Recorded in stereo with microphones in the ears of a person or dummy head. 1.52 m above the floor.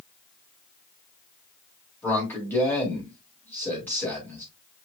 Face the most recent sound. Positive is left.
turn(degrees=10)  # may be behind; listen again after turning